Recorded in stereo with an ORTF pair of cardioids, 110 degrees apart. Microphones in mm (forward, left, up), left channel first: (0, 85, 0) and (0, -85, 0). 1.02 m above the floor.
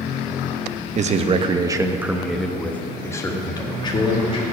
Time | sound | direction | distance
0.9 | a man speaking | 45° right | 0.9 m